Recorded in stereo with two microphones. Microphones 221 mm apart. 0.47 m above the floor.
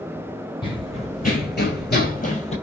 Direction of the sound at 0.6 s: 20° left (ahead or behind).